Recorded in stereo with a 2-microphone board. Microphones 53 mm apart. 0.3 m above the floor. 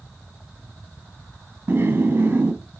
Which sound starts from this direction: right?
Laughter, at 1.7 s.